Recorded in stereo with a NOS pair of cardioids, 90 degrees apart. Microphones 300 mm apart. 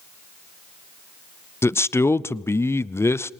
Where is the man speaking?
10° left, 0.5 m.